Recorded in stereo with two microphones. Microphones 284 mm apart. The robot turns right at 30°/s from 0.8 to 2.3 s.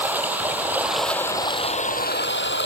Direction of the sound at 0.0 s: 5° right.